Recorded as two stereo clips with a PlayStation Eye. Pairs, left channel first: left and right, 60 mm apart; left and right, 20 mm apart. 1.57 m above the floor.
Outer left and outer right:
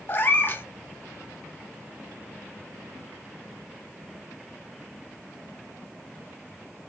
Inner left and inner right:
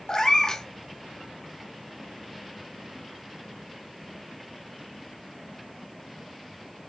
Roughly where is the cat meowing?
Left.